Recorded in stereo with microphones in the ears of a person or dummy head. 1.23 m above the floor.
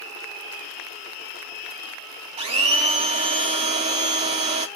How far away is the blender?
About 0.5 m.